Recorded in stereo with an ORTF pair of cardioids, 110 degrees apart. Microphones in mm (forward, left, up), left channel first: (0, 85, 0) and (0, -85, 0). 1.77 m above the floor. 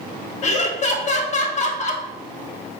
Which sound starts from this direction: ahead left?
Laughter, at 0.4 s.